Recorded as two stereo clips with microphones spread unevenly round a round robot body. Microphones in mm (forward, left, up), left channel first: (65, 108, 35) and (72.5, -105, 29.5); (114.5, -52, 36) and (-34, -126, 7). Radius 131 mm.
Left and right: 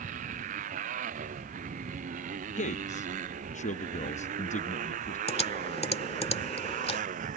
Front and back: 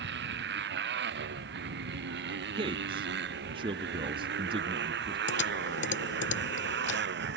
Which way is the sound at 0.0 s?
150° right.